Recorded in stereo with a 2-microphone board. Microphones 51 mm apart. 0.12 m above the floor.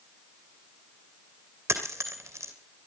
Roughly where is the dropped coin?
Right.